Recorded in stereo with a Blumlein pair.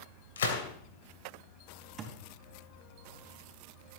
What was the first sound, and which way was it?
A gunshot, 65° left.